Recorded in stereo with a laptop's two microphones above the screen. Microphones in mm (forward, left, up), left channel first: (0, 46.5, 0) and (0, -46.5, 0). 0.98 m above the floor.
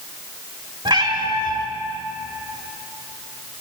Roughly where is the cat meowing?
Right.